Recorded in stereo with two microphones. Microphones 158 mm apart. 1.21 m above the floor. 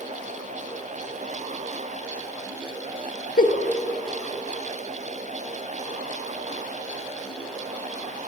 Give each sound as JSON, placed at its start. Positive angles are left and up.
{"t": 3.4, "sound": "a giggle", "side_deg": 60, "distance_m": 0.9}